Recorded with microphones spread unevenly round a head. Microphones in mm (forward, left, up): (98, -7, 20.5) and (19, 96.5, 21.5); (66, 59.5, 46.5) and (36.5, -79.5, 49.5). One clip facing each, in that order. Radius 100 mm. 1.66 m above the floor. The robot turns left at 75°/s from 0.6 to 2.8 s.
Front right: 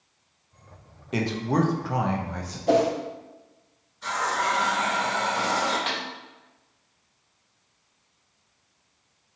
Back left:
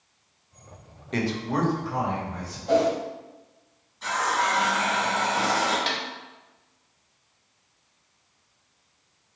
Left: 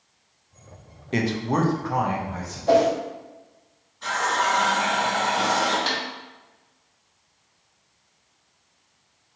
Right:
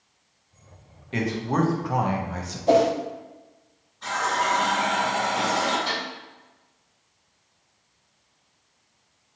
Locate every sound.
1.1 s a man speaking: 30° left, 0.6 m; by 2.6 s 80° right, 0.6 m
2.7 s a whoosh: 30° right, 0.5 m; by 2.9 s 40° right, 0.5 m
4.0 s a running tap: 160° left, 1.5 m
5.9 s a snare drum: 80° left, 0.9 m